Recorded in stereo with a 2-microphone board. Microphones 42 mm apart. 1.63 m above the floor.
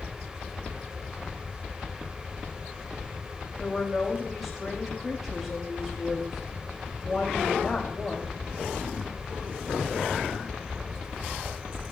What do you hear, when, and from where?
3.6 s a woman speaking: centre (ahead or behind), 3 m